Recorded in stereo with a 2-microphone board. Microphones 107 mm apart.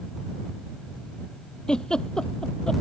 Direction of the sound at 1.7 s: 5° left (ahead or behind).